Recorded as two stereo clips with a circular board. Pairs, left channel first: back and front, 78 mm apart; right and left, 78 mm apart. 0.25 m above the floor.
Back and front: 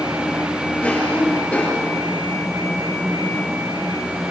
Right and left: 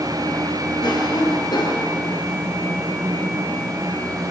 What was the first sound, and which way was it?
A cough, 105° right.